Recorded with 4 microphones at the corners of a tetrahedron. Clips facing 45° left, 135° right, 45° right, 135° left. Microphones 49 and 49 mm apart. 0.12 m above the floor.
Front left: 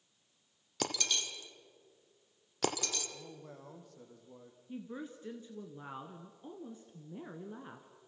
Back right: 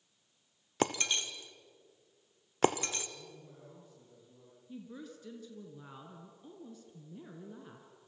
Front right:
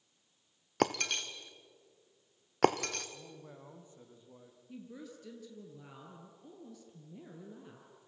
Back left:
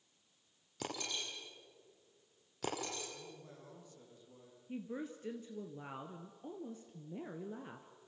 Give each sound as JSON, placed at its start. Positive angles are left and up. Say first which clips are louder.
{"t": 0.8, "sound": "breaking glass", "louder": "back right 4 dB, front right 11 dB", "azimuth_deg": -75, "distance_m": 1.7}
{"t": 3.1, "sound": "a man speaking", "louder": "front left 2 dB, front right 1 dB", "azimuth_deg": 20, "distance_m": 5.0}
{"t": 4.7, "sound": "a woman speaking", "louder": "front left 3 dB, back left 5 dB", "azimuth_deg": 95, "distance_m": 1.6}